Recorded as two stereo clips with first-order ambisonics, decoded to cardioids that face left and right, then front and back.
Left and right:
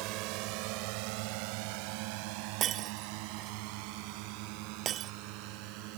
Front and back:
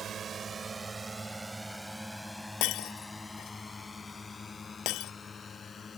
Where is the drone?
120° right; by 6.0 s 70° right.